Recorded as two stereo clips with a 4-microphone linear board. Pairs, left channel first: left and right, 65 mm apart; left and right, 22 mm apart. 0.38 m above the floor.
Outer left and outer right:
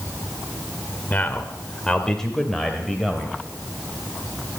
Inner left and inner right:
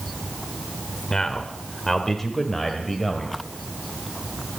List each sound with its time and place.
1.1 s a man speaking: 30° left (ahead or behind), 1.2 m; by 3.4 s 5° right (ahead or behind), 1.9 m